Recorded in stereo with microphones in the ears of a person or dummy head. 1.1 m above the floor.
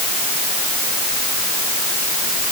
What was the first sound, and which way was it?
Only background noise.